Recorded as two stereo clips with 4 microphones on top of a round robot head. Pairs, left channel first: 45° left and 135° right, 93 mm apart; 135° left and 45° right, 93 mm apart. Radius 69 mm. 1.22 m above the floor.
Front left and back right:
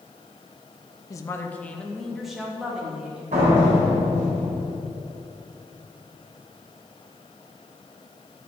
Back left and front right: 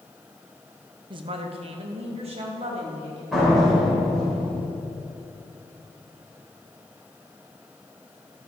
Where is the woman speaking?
10° right, 0.8 m; by 3.2 s 55° right, 2.5 m.